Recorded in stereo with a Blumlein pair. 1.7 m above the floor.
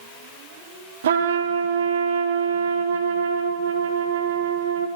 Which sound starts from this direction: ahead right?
A trumpet, at 1.0 s.